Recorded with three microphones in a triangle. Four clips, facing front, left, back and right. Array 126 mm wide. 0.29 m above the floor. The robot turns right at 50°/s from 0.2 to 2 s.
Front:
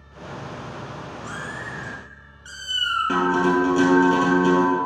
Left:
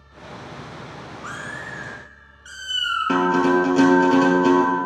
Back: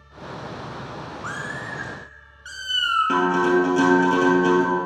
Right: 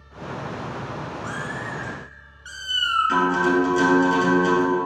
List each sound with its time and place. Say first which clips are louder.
1.2 s a cat meowing: right 3 dB, back 3 dB; 175° left, 1.8 m; by 3.2 s 150° right, 1.8 m
3.1 s a guitar: left 4 dB, even; 90° left, 2 m